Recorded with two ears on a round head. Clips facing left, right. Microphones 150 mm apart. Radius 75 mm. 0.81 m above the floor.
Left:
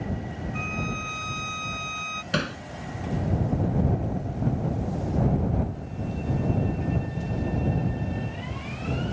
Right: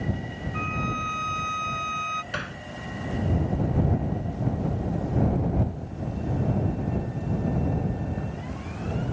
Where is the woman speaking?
No woman speaking in this recording.